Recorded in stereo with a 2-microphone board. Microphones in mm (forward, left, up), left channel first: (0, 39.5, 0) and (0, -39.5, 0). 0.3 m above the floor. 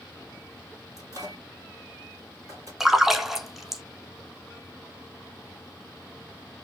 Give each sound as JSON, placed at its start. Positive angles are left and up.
{"t": 1.0, "sound": "a microwave", "side_deg": -50, "distance_m": 2.0}
{"t": 2.8, "sound": "a splash", "side_deg": -5, "distance_m": 0.6}